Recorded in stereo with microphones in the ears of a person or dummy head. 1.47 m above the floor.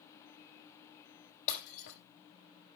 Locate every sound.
1.5 s breaking glass: 55° left (ahead or behind), 6.5 m